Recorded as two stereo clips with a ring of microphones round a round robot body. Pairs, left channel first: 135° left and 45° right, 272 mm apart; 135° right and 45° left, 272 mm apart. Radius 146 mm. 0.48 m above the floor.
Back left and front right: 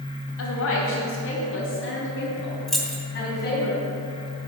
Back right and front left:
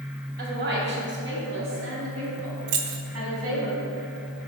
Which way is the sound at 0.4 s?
100° left.